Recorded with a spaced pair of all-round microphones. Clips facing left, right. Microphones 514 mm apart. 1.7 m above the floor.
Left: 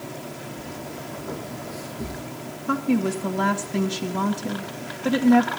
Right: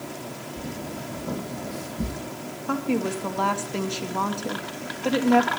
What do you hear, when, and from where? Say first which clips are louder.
0.6 s footsteps: right 2 dB; 60° right (ahead or behind), 3.5 m; by 2.2 s 50° right (ahead or behind), 2.5 m
2.7 s a woman speaking: left 3 dB; 35° left (ahead or behind), 2 m